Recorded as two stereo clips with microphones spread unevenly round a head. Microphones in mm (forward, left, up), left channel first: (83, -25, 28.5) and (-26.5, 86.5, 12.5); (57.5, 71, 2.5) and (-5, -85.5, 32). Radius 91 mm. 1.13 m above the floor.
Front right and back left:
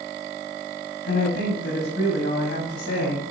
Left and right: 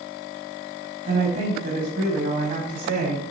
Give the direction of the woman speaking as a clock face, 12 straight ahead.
3 o'clock.